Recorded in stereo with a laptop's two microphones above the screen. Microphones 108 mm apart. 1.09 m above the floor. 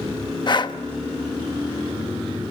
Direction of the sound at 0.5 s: 45° left (ahead or behind).